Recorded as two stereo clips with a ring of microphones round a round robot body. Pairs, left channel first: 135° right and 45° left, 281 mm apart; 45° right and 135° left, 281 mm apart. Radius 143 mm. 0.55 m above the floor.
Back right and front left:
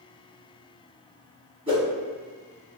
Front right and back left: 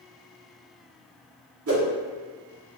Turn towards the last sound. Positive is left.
turn(degrees=115)